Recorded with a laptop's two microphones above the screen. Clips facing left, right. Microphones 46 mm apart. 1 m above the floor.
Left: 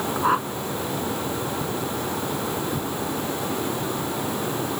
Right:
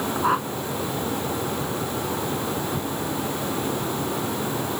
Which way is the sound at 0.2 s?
Centre (ahead or behind).